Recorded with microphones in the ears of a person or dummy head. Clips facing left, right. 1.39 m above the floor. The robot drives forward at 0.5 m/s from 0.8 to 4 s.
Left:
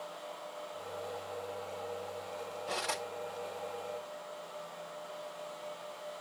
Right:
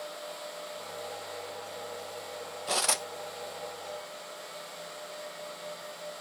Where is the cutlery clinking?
55° right (ahead or behind), 0.7 m; by 3.0 s 50° right (ahead or behind), 0.8 m.